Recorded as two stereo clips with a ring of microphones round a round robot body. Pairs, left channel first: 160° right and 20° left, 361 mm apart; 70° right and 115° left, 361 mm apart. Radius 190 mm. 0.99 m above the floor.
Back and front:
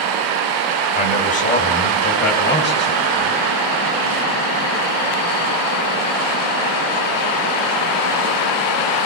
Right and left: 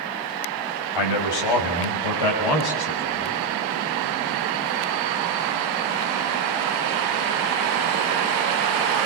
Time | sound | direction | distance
0.9 | a man speaking | 85° right | 7 m